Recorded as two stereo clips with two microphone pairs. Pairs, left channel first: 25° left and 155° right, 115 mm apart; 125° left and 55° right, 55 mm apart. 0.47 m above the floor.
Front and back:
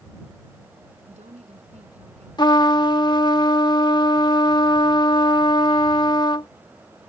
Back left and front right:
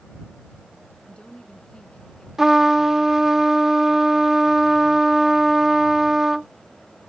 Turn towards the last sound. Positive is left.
turn(degrees=20)